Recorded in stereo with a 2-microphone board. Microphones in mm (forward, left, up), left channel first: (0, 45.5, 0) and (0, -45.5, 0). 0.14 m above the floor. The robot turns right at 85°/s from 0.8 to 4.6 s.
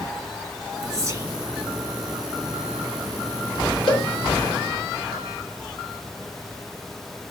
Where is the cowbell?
55° left (ahead or behind), 2.5 m; by 4.1 s 60° left (ahead or behind), 2.5 m.